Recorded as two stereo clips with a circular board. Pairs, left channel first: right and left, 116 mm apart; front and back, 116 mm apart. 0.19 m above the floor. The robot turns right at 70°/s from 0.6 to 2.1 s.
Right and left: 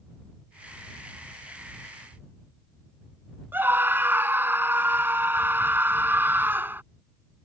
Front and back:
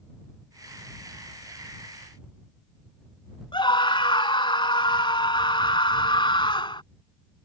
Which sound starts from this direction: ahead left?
A scream, at 3.5 s.